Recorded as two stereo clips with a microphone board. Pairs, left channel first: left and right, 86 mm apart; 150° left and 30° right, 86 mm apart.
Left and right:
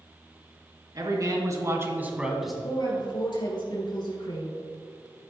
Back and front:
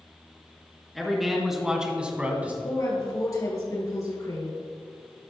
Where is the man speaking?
120° right, 2.5 m; by 2.5 s 5° left, 1.5 m.